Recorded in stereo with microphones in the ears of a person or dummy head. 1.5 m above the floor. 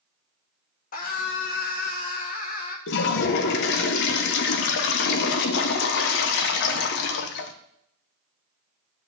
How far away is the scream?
About 1.4 m.